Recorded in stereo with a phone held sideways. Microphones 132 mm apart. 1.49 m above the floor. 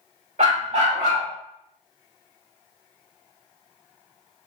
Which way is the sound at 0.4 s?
60° right (ahead or behind).